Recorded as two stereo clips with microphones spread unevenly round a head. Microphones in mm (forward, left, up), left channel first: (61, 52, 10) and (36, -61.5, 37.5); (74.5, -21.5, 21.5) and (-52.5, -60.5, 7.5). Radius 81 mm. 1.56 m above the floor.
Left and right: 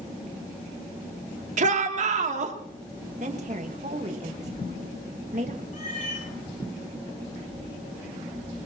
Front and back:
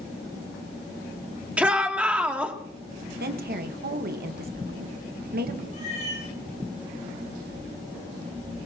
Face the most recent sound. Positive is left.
turn(degrees=70)